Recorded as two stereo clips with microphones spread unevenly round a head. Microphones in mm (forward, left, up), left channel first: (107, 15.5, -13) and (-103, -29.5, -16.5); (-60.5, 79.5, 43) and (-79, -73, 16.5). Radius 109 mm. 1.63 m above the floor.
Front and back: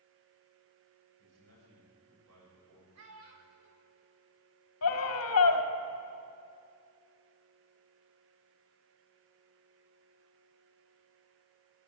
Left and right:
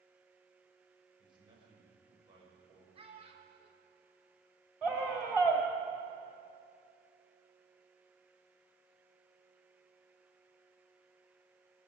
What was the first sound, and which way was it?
A man speaking, 155° right.